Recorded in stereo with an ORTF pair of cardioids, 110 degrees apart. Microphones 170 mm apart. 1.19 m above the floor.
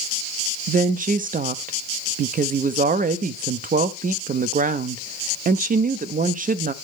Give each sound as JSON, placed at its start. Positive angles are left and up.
{"t": 0.7, "sound": "a woman speaking", "azimuth_deg": -55, "distance_m": 0.6}